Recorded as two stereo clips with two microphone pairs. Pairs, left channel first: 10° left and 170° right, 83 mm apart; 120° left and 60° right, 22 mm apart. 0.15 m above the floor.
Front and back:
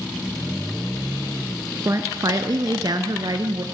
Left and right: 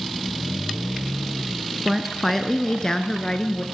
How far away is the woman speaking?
About 1.5 m.